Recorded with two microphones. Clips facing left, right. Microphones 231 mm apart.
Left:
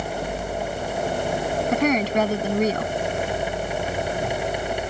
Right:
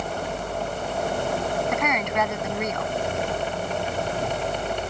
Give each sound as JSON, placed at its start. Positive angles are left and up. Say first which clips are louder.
{"t": 1.7, "sound": "a woman speaking", "louder": "left 6 dB", "side_deg": 35}